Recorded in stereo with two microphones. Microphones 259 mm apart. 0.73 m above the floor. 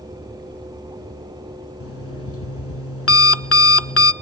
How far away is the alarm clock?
About 0.5 m.